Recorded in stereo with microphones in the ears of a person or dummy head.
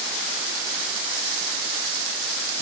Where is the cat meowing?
I don't hear a cat meowing.